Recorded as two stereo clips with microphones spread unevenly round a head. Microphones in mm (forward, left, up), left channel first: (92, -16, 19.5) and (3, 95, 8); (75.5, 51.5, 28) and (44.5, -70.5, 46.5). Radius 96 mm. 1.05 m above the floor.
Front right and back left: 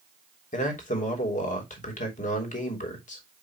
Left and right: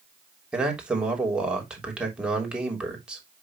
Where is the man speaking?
20° right, 3 m.